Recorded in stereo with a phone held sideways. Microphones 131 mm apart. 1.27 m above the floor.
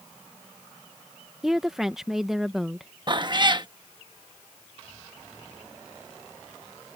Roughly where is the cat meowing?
Right.